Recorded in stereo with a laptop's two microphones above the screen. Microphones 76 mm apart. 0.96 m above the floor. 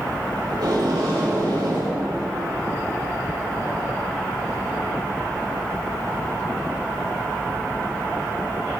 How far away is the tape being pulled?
About 4 m.